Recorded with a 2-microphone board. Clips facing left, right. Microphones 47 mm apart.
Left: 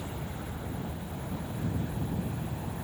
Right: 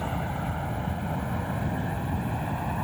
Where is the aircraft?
65° right (ahead or behind).